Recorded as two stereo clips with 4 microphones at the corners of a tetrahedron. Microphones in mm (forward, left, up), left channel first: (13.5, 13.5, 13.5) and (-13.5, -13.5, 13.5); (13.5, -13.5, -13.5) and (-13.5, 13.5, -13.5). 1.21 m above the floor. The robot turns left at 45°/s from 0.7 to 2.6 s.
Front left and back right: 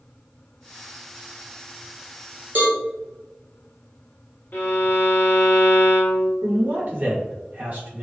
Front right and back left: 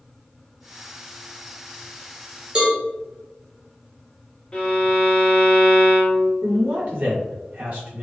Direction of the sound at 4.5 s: 20° left.